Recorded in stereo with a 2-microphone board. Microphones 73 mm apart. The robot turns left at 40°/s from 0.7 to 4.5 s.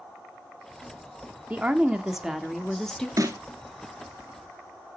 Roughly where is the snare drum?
Right.